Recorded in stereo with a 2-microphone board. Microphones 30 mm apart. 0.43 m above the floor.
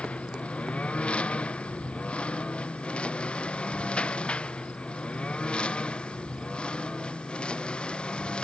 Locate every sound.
0.0 s a lawn mower: 40° left (ahead or behind); by 8.4 s 30° left (ahead or behind)